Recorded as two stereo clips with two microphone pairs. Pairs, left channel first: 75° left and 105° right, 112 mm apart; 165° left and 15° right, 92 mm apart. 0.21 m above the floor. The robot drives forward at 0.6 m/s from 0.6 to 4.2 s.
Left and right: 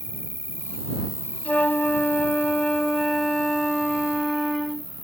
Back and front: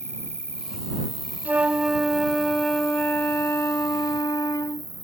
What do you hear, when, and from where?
0.0 s an insect: 100° left; by 5.0 s 140° left
1.4 s a flute: 25° left; by 4.9 s 165° left